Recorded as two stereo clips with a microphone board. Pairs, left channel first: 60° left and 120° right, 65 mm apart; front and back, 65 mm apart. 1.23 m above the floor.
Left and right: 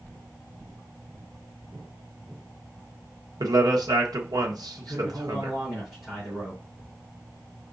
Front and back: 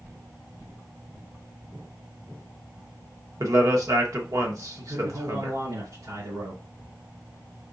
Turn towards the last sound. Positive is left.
turn(degrees=140)